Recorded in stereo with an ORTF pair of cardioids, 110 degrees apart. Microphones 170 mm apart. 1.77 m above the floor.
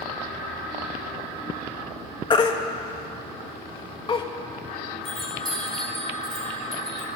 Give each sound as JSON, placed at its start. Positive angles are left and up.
{"t": 2.3, "sound": "a baby crying", "azimuth_deg": 30, "distance_m": 2.0}
{"t": 5.0, "sound": "a chime", "azimuth_deg": 5, "distance_m": 4.5}